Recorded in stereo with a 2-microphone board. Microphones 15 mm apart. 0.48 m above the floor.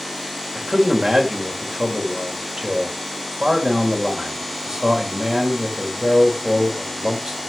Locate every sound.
0.6 s a man speaking: 55° right (ahead or behind), 1.9 m